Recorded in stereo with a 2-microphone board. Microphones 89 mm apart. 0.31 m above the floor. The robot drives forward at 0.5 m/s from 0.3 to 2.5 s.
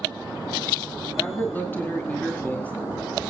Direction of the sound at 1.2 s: 25° left (ahead or behind).